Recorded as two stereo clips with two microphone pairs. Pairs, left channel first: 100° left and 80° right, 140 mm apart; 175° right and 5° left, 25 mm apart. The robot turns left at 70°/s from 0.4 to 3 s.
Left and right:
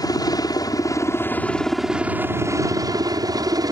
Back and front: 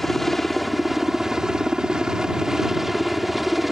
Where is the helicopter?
105° left; by 3.7 s 75° right.